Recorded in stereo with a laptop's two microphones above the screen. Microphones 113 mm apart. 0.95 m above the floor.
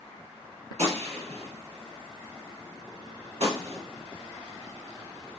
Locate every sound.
0.8 s a gunshot: 65° right (ahead or behind), 1.4 m